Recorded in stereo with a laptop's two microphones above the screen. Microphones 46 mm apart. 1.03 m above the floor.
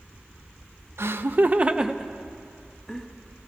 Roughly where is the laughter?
Right.